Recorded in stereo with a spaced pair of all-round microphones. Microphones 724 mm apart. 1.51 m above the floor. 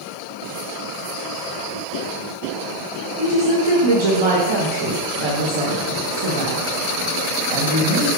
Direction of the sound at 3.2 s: 40° right (ahead or behind).